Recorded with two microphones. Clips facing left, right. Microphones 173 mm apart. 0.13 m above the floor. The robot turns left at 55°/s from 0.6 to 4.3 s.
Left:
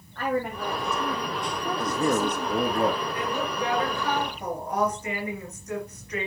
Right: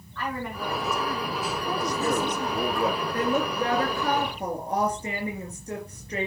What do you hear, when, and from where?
0.1 s a woman speaking: 130° left, 5.5 m; by 2.8 s 10° left, 5.5 m
1.8 s a man speaking: 120° left, 2.5 m; by 3.0 s 55° left, 2.5 m
3.1 s a woman speaking: 70° right, 2.5 m; by 6.3 s 135° right, 2.5 m